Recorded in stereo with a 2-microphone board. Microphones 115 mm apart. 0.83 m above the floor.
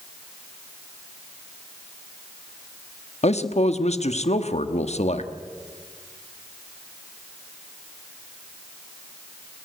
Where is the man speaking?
70° left (ahead or behind), 1.2 m.